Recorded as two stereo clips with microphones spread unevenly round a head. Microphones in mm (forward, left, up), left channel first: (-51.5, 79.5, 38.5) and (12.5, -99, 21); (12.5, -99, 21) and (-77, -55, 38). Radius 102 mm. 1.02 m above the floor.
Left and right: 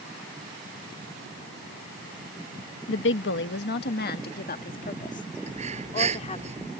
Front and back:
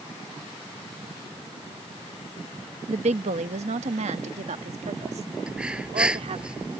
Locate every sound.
2.9 s a woman speaking: 125° left; by 6.5 s 165° left
5.5 s breathing: 125° right